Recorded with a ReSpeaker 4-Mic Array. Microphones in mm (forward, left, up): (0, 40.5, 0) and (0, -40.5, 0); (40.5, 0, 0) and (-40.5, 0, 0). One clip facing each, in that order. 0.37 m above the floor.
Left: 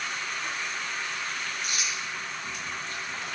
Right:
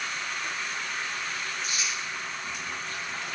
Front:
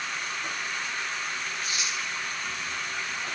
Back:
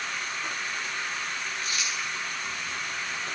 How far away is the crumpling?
About 6.5 m.